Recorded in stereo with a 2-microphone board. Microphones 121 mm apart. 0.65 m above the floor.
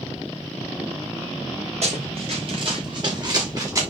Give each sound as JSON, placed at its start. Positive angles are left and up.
{"t": 1.8, "sound": "running footsteps", "side_deg": -60, "distance_m": 3.5}